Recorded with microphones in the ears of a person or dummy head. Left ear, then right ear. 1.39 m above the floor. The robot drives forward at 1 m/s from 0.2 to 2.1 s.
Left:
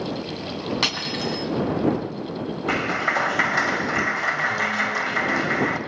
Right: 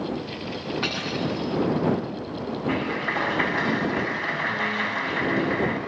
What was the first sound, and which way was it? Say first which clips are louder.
Cutlery clinking: left 4 dB; 85° left.